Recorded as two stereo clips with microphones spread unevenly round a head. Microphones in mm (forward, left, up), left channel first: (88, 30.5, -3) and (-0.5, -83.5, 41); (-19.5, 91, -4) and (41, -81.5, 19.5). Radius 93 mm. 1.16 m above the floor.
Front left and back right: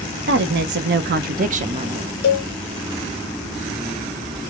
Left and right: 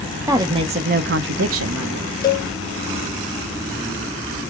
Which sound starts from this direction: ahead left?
A cowbell, at 2.2 s.